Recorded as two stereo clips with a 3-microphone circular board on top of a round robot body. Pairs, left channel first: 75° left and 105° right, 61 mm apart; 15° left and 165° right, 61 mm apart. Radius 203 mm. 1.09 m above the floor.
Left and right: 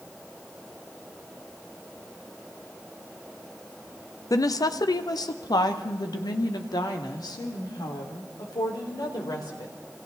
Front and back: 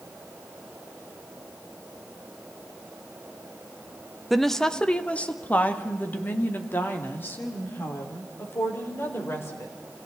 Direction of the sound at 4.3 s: 105° left.